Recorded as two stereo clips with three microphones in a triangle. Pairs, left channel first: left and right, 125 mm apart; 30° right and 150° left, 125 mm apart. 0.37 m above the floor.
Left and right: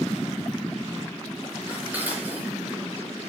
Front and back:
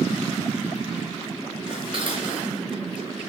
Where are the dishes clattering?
165° right, 3.5 m.